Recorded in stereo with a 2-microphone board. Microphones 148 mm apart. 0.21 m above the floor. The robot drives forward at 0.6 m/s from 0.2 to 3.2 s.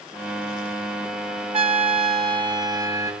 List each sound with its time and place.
1.5 s a trumpet: 40° right (ahead or behind), 0.6 m; by 3.1 s 25° right (ahead or behind), 1.0 m